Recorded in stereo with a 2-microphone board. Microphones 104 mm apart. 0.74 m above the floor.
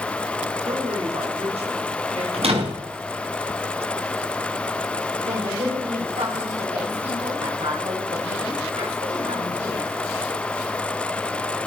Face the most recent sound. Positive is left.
turn(degrees=-80)